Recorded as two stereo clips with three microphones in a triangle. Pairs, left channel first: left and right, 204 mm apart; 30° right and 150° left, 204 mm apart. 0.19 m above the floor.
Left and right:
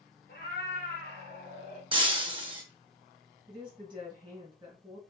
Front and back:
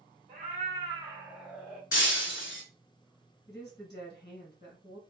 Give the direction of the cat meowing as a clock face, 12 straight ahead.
8 o'clock.